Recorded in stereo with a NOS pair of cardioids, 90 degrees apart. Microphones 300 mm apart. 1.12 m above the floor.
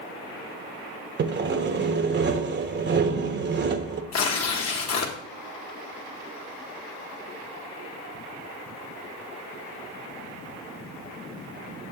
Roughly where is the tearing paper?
Ahead left.